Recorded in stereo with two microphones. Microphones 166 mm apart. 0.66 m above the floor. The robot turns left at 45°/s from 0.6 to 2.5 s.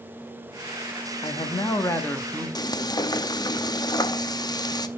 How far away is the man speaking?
About 1.1 m.